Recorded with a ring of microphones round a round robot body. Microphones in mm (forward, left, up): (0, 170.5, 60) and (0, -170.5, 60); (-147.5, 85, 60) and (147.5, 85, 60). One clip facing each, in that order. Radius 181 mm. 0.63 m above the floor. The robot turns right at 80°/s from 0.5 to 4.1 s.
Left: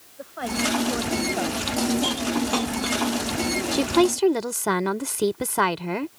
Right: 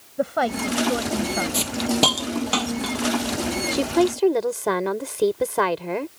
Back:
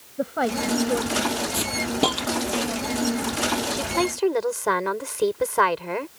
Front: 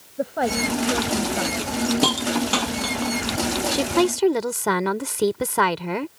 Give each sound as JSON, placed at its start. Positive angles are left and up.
{"t": 0.2, "sound": "a woman speaking", "azimuth_deg": -95}
{"t": 1.5, "sound": "a hiss", "azimuth_deg": -115}
{"t": 3.7, "sound": "a woman speaking", "azimuth_deg": 0}